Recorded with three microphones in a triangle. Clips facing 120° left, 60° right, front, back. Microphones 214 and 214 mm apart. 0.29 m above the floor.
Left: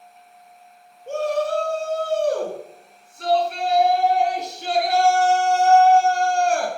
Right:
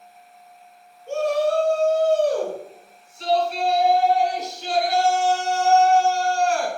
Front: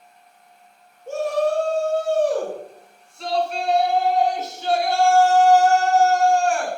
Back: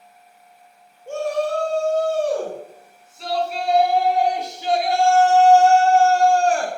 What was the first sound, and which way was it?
A shout, 85° left.